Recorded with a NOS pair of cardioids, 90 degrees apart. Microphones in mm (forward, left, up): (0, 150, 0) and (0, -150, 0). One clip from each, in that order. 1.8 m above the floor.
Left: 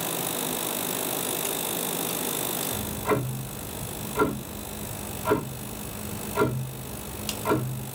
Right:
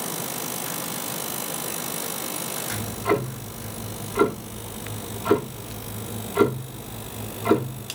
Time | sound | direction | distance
2.7 | ticking | 30° right | 1.3 m